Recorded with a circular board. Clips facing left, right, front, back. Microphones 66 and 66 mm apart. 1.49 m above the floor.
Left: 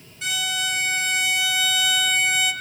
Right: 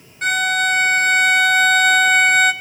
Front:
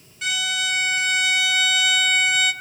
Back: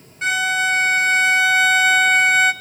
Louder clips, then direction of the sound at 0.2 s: Right 10 dB, back 7 dB; 130° right.